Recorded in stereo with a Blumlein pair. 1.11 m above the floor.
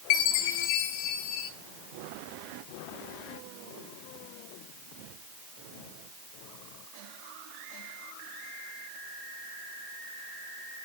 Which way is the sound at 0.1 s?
45° left.